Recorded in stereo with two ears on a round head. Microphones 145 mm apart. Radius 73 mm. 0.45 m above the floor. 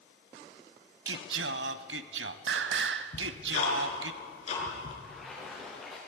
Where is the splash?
Centre (ahead or behind), 9.5 m.